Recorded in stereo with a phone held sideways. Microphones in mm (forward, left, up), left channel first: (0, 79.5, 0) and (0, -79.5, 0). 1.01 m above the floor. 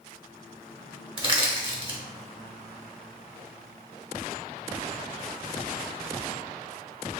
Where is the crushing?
35° right (ahead or behind), 0.9 m.